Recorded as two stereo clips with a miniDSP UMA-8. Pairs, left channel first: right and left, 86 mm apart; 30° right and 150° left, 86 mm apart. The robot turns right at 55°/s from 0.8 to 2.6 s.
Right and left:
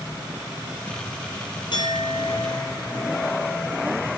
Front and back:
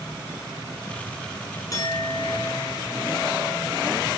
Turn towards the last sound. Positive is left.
turn(degrees=-25)